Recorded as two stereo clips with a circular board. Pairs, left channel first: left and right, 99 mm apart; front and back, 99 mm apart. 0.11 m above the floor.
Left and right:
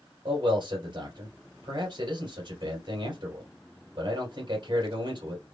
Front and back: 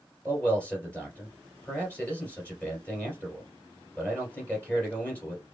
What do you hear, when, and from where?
0.2 s a man speaking: 70° right, 2.5 m